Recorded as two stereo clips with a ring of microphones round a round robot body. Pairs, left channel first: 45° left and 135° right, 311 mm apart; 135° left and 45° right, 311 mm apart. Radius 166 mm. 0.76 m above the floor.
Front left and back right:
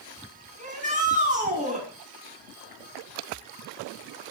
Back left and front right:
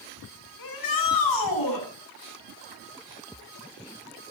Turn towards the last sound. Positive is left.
turn(degrees=155)